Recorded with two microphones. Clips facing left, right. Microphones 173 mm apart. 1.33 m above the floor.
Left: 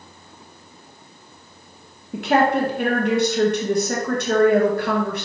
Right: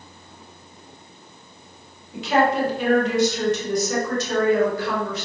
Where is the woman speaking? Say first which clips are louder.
Left 2 dB; 65° left (ahead or behind), 0.8 m.